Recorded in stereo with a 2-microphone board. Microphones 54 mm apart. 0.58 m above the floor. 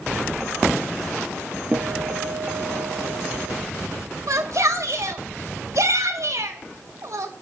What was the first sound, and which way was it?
A guitar, 25° right (ahead or behind).